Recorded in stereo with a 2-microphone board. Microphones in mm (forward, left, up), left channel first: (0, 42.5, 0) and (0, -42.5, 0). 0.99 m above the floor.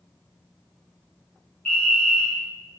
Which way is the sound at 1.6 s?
20° left (ahead or behind).